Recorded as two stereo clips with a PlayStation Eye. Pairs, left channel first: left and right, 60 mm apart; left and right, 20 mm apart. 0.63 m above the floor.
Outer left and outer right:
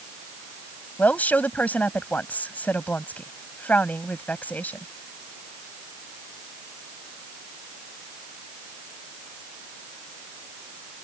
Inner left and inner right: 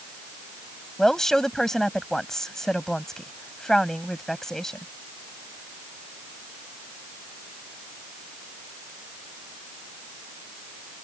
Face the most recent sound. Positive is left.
turn(degrees=30)  # may be behind; listen again after turning